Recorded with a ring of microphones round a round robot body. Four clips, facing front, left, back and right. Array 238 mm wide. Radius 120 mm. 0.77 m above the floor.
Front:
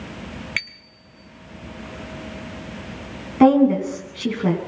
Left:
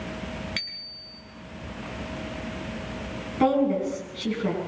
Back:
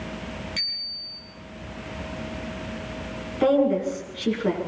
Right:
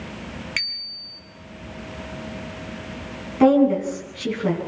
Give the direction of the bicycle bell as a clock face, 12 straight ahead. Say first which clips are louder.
Right 5 dB, front 6 dB; 12 o'clock.